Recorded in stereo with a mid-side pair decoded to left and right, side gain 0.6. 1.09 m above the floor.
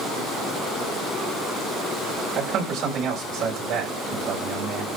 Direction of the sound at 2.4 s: 55° right.